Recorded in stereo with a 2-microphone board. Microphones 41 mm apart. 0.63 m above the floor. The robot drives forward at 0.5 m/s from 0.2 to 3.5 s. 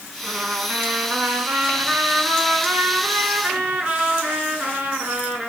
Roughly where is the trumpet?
Right.